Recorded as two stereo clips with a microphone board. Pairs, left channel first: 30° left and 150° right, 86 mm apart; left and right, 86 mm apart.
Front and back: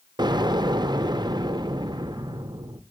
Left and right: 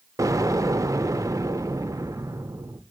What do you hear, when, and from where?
0.2 s an explosion: 135° right, 0.6 m